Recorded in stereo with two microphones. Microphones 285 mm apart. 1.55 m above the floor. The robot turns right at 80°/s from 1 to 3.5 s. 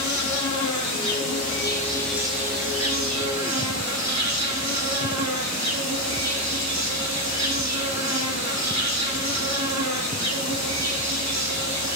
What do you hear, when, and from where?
0.0 s an insect: 90° left, 0.9 m; by 12.0 s 70° right, 0.9 m